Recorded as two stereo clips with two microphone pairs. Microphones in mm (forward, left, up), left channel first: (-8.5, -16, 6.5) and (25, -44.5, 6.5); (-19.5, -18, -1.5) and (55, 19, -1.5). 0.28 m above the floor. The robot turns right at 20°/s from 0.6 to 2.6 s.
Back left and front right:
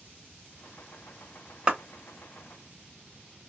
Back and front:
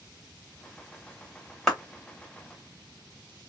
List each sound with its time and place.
1.7 s a clap: 70° right, 0.8 m; by 1.8 s 65° right, 0.8 m